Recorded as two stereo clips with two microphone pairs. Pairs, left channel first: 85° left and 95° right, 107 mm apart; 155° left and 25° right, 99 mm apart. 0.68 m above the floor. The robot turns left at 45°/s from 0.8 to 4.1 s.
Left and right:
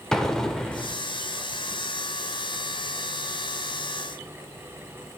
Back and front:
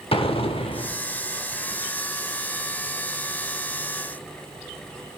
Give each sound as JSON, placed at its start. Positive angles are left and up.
{"t": 0.1, "sound": "an explosion", "azimuth_deg": 170, "distance_m": 0.6}